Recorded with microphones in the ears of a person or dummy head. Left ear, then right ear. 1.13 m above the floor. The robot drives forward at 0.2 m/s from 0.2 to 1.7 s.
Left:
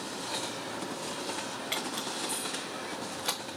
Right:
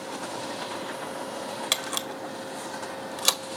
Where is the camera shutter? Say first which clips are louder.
Right 5 dB; 85° right, 1.1 m.